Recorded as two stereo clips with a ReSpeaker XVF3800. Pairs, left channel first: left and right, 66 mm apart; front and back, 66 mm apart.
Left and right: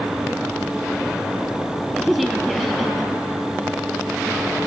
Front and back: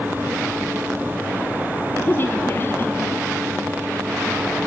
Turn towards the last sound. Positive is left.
turn(degrees=-5)